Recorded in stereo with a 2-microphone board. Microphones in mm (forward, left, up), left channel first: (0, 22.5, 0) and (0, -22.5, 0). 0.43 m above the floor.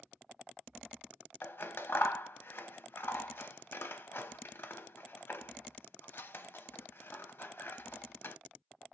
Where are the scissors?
55° left (ahead or behind), 0.5 m.